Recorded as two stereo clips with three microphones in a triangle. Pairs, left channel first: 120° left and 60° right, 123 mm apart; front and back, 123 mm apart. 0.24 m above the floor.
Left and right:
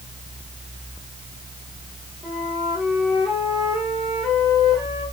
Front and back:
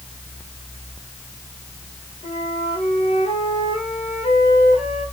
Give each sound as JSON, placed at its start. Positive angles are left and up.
{"t": 2.2, "sound": "a flute", "azimuth_deg": 30, "distance_m": 5.5}